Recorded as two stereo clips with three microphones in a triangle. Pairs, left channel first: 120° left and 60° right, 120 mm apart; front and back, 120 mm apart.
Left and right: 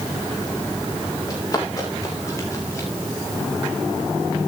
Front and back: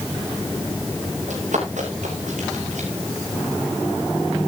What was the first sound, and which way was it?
Running footsteps, 175° left.